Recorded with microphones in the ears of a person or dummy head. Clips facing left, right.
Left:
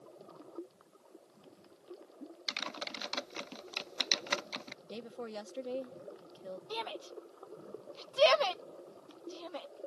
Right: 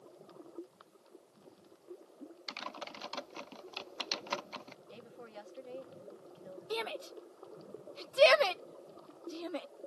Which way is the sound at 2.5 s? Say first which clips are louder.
Left 2 dB; 20° left (ahead or behind).